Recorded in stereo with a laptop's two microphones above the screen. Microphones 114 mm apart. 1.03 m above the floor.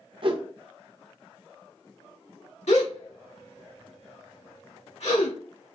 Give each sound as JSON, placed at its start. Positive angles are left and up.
{"t": 0.2, "sound": "a whoosh", "side_deg": -50, "distance_m": 0.6}
{"t": 2.7, "sound": "a gasp", "side_deg": 75, "distance_m": 1.3}